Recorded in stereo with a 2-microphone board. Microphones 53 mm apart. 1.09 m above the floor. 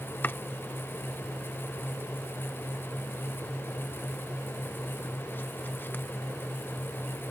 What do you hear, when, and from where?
0.2 s chopping: 40° left (ahead or behind)